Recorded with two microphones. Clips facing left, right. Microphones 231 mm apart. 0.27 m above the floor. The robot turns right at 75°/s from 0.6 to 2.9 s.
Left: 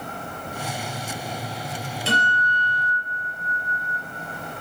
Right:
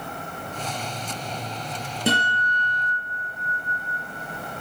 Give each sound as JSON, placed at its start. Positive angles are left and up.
{"t": 2.1, "sound": "a guitar", "azimuth_deg": -65, "distance_m": 3.5}